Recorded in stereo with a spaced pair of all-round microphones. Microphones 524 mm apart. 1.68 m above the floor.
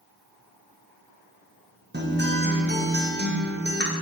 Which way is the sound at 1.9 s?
20° right (ahead or behind).